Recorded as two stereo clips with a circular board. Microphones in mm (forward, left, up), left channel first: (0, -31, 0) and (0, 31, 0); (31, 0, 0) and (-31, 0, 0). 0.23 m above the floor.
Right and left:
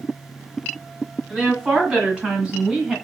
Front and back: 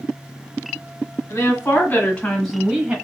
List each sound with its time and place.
1.3 s a woman speaking: 25° left, 1.8 m; by 3.0 s 155° left, 1.1 m